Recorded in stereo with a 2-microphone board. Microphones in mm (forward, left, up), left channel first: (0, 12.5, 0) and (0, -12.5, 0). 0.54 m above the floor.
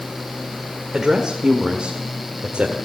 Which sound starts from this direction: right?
A woman speaking, at 0.9 s.